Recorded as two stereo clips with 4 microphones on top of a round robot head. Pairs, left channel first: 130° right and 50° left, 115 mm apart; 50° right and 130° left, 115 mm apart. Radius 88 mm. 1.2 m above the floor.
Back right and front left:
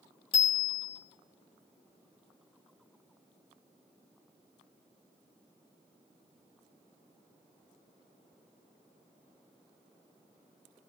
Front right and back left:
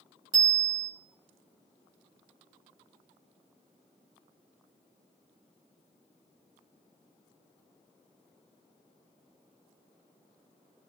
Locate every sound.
0.3 s a bicycle bell: 175° right, 3.5 m